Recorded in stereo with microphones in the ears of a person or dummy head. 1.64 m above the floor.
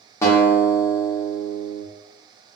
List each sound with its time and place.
0.2 s a guitar: 20° left (ahead or behind), 1.0 m